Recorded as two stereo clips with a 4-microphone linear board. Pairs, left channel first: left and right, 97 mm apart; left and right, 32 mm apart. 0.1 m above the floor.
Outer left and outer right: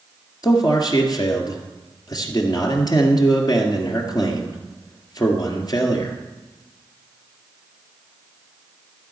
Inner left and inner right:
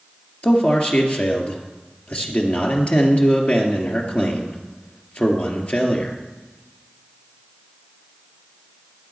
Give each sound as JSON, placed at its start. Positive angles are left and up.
{"t": 0.4, "sound": "a man speaking", "side_deg": 45, "distance_m": 2.0}